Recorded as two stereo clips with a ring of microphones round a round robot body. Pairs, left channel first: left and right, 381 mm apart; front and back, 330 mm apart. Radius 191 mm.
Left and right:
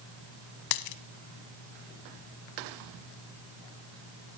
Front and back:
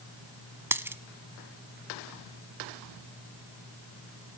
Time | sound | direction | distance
0.7 | a dropped coin | 95° left | 1.1 m